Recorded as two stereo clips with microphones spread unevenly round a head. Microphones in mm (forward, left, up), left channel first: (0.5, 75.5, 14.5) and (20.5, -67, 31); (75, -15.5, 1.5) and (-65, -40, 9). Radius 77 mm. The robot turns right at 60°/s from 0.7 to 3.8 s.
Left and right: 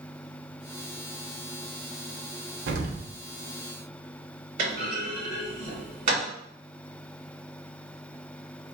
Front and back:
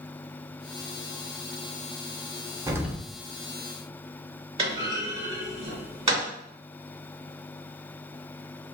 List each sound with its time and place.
2.7 s an explosion: 100° right, 0.5 m; by 3.1 s 75° right, 0.5 m
4.6 s a clunk: 125° right, 1.7 m